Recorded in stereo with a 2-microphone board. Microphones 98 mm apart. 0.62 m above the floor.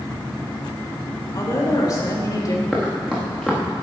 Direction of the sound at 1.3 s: 40° left (ahead or behind).